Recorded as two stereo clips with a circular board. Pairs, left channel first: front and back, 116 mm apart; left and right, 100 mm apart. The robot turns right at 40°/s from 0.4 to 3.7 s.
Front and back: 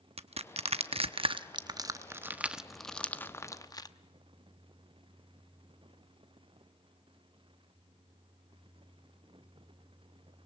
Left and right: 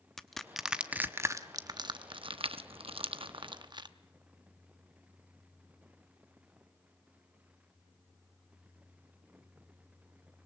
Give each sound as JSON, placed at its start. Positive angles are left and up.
{"t": 0.2, "sound": "crushing", "azimuth_deg": 175, "distance_m": 0.8}